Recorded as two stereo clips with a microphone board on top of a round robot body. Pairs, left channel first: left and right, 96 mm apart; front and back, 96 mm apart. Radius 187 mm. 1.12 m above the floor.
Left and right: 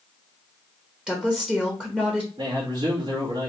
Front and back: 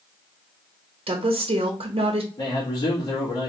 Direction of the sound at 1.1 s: 175° right.